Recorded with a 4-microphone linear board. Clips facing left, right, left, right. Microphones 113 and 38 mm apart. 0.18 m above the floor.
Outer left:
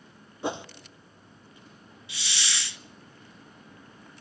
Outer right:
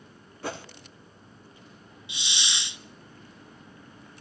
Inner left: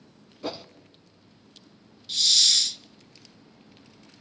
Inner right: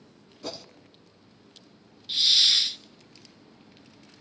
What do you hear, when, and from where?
0.4 s a whoosh: 20° left (ahead or behind), 0.7 m
2.1 s a hiss: 20° right (ahead or behind), 0.6 m